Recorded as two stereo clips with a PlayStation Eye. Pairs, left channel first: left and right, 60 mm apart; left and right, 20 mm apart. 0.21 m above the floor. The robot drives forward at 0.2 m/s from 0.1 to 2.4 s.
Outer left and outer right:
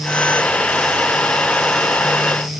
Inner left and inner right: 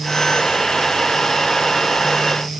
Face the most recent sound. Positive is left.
No sound to turn to.